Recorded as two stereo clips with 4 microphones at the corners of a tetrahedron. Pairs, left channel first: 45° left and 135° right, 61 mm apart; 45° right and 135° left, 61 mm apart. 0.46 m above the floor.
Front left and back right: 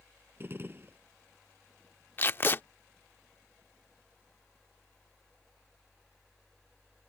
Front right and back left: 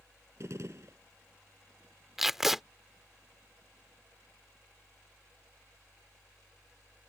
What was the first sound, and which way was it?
A gunshot, 175° left.